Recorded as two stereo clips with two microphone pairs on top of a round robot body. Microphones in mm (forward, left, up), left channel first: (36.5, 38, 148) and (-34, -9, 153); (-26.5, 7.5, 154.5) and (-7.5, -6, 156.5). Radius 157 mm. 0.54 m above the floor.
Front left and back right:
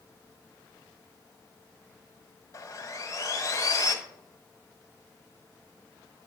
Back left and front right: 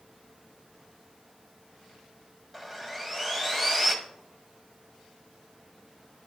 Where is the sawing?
70° left, 1.8 m.